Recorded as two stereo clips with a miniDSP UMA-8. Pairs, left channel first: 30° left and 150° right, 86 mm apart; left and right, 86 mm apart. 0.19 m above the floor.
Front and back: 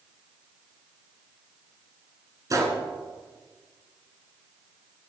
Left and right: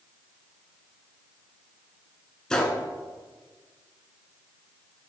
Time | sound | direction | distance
2.5 | a gunshot | 170° left | 1.2 m